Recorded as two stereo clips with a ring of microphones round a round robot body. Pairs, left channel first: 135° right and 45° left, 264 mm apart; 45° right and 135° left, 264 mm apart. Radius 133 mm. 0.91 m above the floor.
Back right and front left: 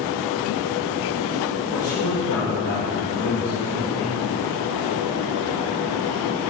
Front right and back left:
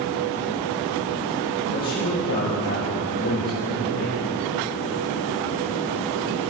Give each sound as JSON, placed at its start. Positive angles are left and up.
{"t": 1.7, "sound": "a man speaking", "azimuth_deg": -85, "distance_m": 4.0}